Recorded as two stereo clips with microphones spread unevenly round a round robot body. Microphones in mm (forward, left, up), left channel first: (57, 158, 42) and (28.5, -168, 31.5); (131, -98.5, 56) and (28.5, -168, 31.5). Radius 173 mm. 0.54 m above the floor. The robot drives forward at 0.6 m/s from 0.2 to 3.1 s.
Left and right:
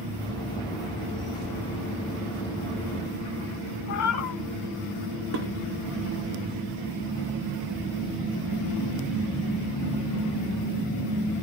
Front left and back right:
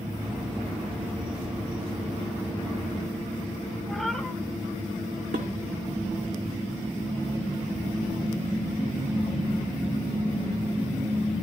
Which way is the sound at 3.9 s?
120° left.